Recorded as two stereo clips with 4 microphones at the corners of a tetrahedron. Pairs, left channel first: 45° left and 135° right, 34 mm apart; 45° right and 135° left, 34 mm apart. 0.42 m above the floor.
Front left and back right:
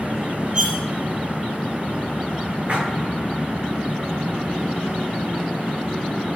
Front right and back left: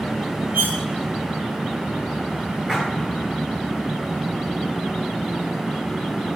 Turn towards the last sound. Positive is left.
turn(degrees=-140)